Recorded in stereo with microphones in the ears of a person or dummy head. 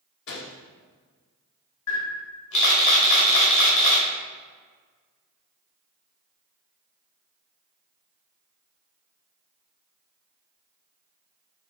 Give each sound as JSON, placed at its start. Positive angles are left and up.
{"t": 0.3, "sound": "a gunshot", "side_deg": 60, "distance_m": 0.9}
{"t": 1.9, "sound": "a camera shutter", "side_deg": 70, "distance_m": 1.9}